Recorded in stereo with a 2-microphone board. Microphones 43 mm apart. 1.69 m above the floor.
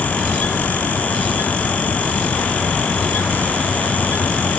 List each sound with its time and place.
Only background noise.